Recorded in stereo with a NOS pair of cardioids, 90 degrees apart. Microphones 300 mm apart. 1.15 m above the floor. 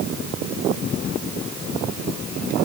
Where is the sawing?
No sawing in this recording.